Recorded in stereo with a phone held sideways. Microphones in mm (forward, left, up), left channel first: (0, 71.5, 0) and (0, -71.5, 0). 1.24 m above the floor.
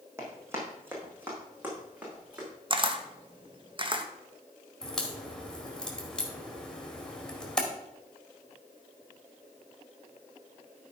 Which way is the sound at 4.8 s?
5° left (ahead or behind).